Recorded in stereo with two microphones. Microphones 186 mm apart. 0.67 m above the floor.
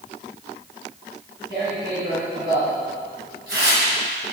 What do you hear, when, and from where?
1.5 s tearing paper: 65° right (ahead or behind), 2 m